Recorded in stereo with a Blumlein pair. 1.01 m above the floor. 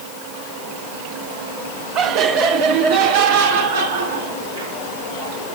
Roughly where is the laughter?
Ahead right.